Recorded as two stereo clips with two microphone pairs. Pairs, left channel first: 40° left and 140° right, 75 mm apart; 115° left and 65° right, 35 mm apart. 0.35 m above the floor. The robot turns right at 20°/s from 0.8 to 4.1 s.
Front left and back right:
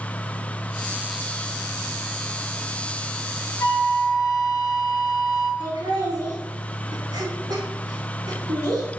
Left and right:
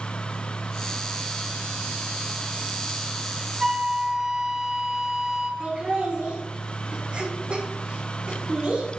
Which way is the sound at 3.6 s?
Straight ahead.